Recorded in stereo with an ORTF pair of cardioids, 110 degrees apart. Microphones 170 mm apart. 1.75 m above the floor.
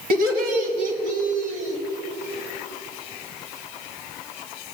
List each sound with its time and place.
0.1 s laughter: 60° right, 1.9 m; by 1.8 s 45° right, 3 m